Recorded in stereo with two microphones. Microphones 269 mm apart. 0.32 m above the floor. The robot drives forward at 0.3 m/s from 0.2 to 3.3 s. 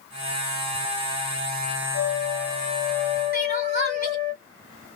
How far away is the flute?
About 0.7 m.